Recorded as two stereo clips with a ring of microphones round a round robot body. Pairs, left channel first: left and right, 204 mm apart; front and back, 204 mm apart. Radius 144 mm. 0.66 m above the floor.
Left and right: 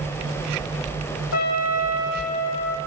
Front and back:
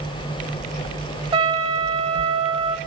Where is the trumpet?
115° left, 1.1 m.